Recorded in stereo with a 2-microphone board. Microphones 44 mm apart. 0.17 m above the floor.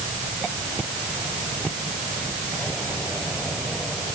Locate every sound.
Only background noise.